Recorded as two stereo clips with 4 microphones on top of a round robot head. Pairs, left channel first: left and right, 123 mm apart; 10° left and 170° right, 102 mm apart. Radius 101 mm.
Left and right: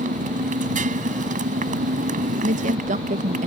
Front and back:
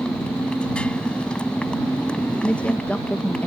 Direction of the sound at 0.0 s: 70° right.